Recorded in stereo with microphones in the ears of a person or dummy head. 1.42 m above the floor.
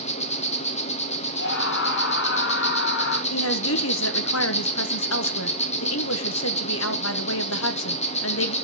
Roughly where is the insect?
Left.